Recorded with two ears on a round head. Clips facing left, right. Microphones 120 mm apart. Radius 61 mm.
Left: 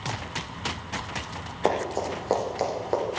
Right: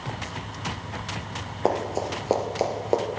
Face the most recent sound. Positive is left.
turn(degrees=-25)  # may be behind; listen again after turning